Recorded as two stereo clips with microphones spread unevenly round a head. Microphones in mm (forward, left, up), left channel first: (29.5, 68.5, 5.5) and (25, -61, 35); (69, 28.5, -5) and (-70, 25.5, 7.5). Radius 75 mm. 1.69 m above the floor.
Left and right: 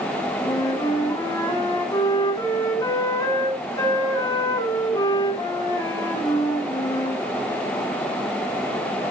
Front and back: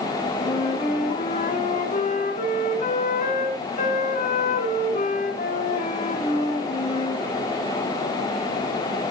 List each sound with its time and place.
0.4 s a flute: 20° left, 2.5 m